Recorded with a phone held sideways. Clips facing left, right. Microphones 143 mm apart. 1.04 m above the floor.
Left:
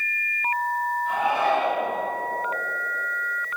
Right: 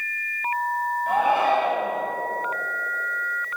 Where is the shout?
60° right (ahead or behind), 6 m.